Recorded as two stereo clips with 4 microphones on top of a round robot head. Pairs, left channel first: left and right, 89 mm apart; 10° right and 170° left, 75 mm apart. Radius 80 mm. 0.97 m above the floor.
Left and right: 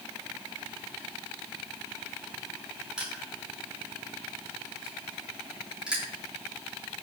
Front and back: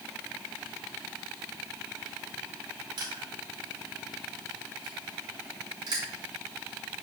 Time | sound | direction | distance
3.0 | crushing | 170° right | 7.5 m